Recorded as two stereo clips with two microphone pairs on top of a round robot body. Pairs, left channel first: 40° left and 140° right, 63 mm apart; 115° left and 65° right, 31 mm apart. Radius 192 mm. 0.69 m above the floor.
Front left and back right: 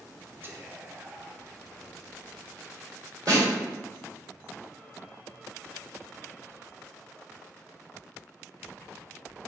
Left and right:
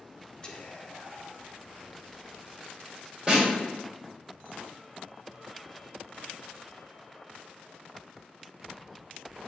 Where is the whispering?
170° left, 0.7 m.